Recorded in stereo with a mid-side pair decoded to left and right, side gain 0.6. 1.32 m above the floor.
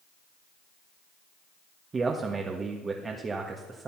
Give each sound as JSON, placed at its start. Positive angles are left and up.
{"t": 1.9, "sound": "a man speaking", "azimuth_deg": -30, "distance_m": 1.6}